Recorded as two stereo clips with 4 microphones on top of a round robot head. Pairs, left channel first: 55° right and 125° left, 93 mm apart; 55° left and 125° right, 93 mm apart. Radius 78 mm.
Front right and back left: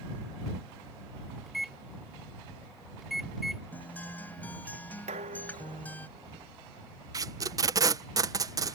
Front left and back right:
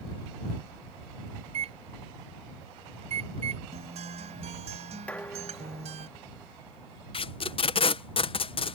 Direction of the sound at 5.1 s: 135° left.